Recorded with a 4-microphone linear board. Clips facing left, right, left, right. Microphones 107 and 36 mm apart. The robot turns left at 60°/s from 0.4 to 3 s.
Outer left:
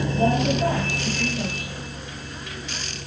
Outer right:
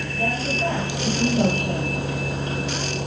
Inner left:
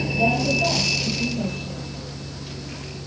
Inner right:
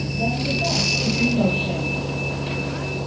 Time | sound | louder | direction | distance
0.0 | a vehicle | outer left 5 dB, inner left 3 dB | 15° left (ahead or behind) | ?